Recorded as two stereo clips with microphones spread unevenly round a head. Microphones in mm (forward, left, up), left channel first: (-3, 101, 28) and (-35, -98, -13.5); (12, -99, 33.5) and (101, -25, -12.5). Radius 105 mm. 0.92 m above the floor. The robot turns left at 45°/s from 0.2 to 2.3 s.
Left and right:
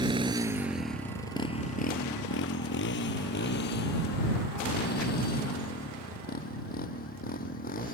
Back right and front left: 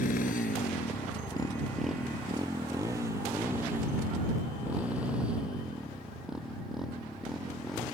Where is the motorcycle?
170° right; by 8.0 s 130° left.